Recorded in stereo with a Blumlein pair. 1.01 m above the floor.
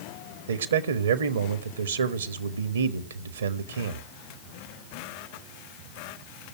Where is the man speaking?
65° right, 1.4 m.